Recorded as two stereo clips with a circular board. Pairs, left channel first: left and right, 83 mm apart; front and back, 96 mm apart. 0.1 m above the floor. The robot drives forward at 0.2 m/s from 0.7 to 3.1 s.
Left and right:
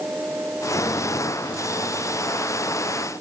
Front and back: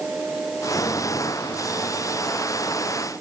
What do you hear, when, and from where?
Only background noise.